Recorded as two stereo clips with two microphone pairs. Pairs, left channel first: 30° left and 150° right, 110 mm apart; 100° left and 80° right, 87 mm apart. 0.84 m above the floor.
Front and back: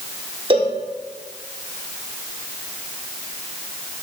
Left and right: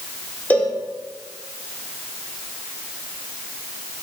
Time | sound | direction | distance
0.5 | a cowbell | 175° left | 0.7 m